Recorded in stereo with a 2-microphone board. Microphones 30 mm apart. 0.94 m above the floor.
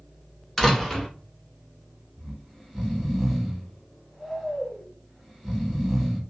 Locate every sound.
0.6 s a door slam: 10° left (ahead or behind), 0.8 m
2.2 s snoring: centre (ahead or behind), 0.9 m